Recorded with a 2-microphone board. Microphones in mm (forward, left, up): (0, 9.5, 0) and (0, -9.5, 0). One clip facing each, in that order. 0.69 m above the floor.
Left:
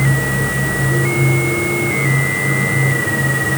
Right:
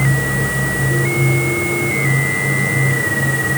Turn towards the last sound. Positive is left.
No sound to turn to.